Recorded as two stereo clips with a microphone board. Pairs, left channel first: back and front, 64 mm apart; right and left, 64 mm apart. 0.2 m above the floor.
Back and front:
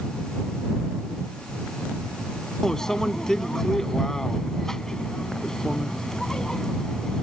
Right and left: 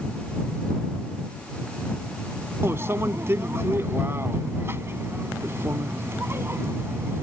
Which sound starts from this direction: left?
A microwave, at 2.6 s.